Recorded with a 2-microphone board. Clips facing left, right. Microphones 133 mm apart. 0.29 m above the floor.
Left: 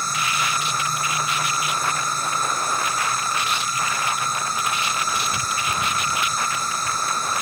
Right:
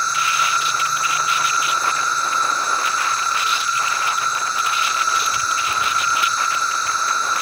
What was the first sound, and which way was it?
An insect, 50° left (ahead or behind).